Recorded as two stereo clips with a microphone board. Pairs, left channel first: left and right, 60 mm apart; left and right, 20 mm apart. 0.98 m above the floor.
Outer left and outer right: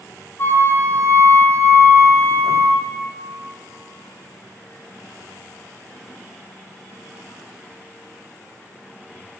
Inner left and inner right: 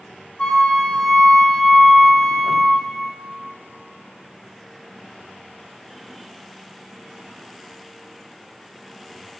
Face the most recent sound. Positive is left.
turn(degrees=40)  # may be behind; listen again after turning